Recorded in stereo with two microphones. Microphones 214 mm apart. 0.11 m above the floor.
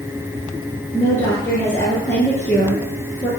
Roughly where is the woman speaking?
Centre.